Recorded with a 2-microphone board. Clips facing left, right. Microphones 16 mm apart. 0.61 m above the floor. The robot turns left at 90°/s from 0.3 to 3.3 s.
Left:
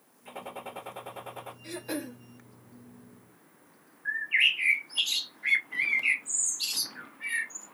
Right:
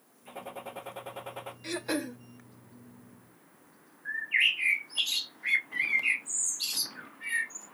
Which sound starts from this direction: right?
Throat clearing, at 1.6 s.